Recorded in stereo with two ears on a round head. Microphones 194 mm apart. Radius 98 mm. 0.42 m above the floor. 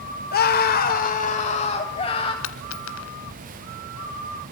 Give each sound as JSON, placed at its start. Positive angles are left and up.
{"t": 0.3, "sound": "a scream", "side_deg": 45, "distance_m": 1.6}
{"t": 2.4, "sound": "a dropped coin", "side_deg": 65, "distance_m": 1.6}